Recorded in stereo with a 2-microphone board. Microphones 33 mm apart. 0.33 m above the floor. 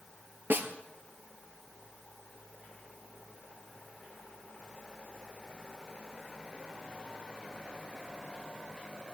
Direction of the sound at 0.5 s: 75° right (ahead or behind).